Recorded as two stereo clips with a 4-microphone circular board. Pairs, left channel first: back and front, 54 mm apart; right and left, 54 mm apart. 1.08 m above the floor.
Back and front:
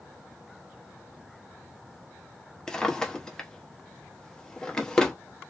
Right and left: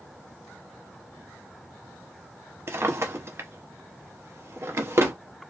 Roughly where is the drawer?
Left.